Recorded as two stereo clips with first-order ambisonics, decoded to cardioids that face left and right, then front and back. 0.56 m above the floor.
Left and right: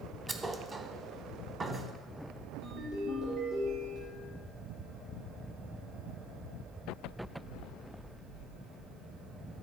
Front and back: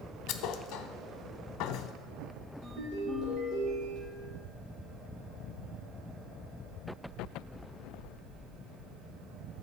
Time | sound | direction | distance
0.3 | a thud | 15° right | 0.7 m
2.6 | a ringtone | 140° right | 4.5 m